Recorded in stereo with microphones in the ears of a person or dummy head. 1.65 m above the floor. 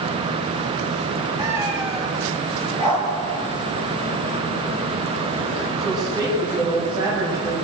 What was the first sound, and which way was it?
A cat meowing, 15° right (ahead or behind).